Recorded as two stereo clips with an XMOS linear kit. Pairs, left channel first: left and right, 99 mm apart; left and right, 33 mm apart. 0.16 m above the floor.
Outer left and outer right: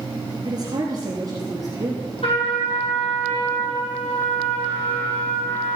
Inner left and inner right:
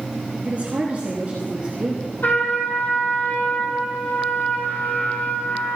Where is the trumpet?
75° left (ahead or behind), 5.5 m.